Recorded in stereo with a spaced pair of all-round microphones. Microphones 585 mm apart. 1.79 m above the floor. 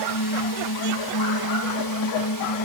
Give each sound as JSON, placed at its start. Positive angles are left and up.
{"t": 0.0, "sound": "a drone", "side_deg": 40}